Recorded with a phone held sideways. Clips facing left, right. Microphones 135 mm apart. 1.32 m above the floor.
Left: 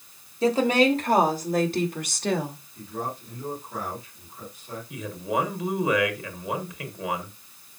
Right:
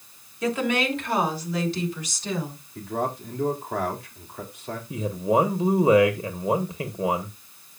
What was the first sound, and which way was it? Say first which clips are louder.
A woman speaking: left 4 dB; 30° left (ahead or behind).